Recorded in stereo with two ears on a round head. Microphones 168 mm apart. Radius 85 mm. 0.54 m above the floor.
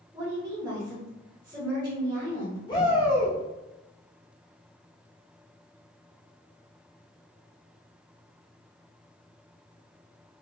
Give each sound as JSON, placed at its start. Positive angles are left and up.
{"t": 0.1, "sound": "a woman speaking", "side_deg": -20, "distance_m": 1.1}
{"t": 2.7, "sound": "a shout", "side_deg": 25, "distance_m": 0.9}